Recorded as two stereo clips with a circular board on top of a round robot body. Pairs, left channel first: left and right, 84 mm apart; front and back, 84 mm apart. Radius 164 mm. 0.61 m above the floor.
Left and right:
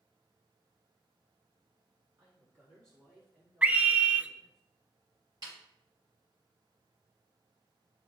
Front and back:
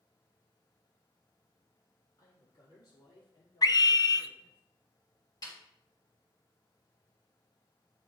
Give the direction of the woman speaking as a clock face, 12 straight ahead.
2 o'clock.